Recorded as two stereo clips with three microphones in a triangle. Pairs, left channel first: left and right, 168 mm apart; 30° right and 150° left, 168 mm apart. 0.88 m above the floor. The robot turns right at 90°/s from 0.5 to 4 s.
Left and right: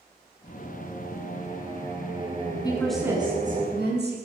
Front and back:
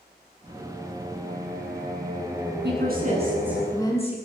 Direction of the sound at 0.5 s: 45° left.